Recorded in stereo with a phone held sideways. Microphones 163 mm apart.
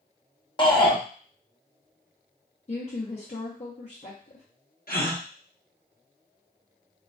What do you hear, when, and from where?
0.6 s a shout: 30° left (ahead or behind), 0.8 m
2.7 s a woman speaking: 45° left (ahead or behind), 0.6 m
4.9 s a gasp: 65° left (ahead or behind), 0.6 m